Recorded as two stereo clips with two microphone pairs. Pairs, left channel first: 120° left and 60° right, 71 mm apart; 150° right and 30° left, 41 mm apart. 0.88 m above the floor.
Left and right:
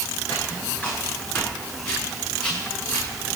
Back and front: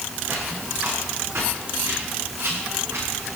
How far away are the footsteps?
About 7.5 m.